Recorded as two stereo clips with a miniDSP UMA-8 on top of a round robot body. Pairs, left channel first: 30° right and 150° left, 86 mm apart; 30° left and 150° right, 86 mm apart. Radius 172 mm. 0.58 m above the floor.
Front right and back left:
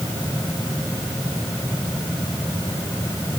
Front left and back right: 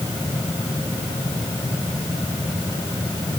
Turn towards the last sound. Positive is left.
No sound to turn to.